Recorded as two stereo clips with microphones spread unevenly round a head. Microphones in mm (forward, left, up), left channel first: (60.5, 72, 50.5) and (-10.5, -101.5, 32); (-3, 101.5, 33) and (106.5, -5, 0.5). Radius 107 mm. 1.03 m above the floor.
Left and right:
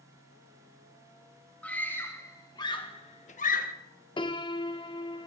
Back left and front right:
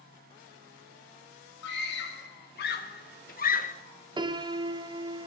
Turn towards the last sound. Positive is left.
turn(degrees=0)